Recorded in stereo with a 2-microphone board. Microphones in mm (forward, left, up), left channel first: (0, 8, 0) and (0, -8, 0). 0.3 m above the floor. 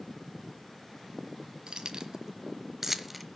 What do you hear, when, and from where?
1.7 s keys jangling: 60° right (ahead or behind), 1.6 m; by 3.3 s centre (ahead or behind), 1.0 m